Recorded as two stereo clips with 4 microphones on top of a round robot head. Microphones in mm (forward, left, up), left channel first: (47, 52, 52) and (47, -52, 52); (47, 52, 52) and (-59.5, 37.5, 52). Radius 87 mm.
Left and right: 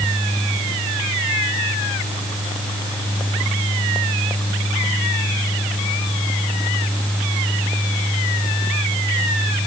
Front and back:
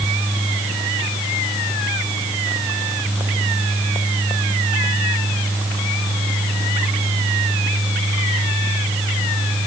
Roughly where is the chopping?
I don't hear chopping.